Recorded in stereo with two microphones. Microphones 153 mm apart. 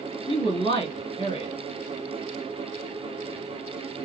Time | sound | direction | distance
0.3 | a woman speaking | 35° left (ahead or behind) | 1.9 m